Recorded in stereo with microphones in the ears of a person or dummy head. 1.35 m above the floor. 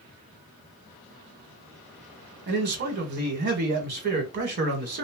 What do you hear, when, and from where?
2.5 s a man speaking: 50° right (ahead or behind), 1.2 m